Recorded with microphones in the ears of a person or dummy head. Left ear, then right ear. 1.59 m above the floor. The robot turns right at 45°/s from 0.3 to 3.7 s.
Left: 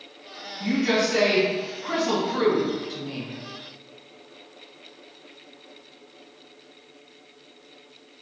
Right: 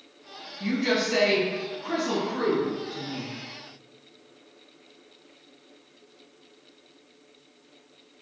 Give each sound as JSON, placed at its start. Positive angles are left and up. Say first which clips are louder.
{"t": 0.6, "sound": "a woman speaking", "louder": "left 3 dB", "azimuth_deg": -50, "distance_m": 1.4}